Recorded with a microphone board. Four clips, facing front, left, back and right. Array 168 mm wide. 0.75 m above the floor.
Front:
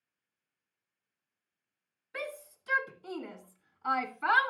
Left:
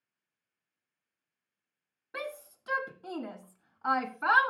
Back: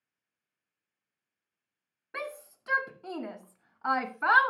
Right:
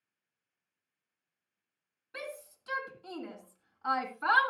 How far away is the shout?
About 2.5 m.